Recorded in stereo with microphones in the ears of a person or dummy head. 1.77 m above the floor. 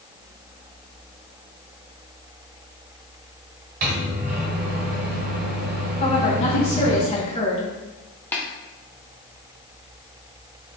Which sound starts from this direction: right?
A microwave, at 3.8 s.